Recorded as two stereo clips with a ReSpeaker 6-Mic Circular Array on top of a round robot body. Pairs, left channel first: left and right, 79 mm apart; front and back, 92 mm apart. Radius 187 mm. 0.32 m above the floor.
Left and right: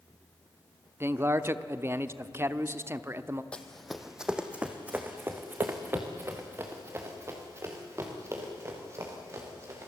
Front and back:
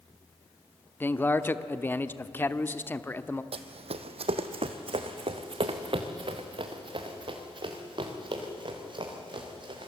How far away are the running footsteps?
About 0.9 m.